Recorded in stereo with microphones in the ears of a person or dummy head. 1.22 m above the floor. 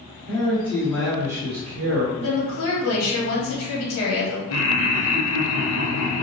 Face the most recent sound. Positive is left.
turn(degrees=90)